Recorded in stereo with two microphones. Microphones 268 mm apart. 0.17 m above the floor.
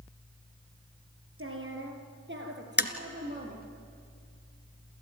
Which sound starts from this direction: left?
Tapping, at 2.8 s.